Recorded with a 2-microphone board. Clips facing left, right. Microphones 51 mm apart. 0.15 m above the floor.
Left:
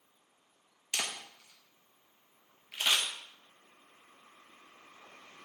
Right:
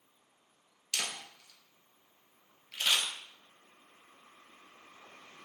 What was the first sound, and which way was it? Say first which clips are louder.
A camera shutter: left 1 dB; 20° left (ahead or behind).